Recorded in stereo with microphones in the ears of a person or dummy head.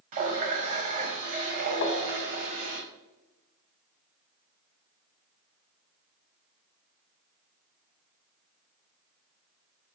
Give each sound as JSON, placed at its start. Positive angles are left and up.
{"t": 0.1, "sound": "a running tap", "side_deg": -50, "distance_m": 0.9}
{"t": 1.8, "sound": "tapping", "side_deg": 40, "distance_m": 0.7}